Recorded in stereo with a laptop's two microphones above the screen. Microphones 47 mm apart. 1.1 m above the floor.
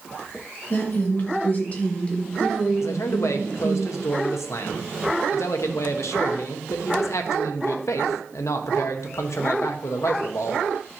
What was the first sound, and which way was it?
A woman speaking, 45° left (ahead or behind).